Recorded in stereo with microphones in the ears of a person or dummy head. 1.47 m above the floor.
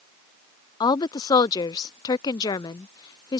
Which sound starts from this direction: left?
A woman speaking, at 0.8 s.